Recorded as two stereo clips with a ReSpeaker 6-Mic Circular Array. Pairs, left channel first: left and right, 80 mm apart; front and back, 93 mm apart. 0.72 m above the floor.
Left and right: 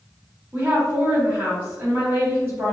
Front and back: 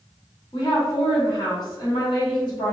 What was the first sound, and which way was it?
A woman speaking, 25° right.